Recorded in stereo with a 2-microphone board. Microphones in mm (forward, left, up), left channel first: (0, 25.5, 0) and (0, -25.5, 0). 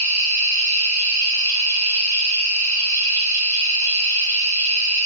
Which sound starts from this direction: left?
An insect, at 0.0 s.